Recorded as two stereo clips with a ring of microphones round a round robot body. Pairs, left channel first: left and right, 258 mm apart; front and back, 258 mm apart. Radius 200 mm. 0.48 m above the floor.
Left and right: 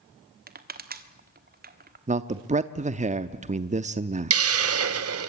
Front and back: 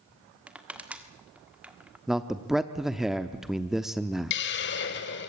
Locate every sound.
0.5 s crushing: 100° right, 1.6 m
2.1 s a man speaking: 95° right, 0.7 m
4.3 s a hiss: 55° right, 0.8 m